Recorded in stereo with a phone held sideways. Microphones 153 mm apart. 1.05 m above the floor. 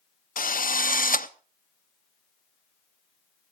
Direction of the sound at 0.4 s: 60° left (ahead or behind).